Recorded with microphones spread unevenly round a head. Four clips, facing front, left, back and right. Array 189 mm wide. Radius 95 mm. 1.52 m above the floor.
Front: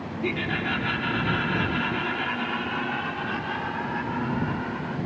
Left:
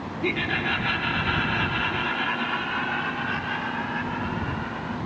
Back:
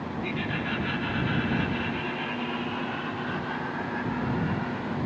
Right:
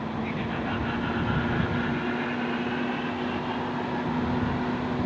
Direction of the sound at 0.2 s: 55° left.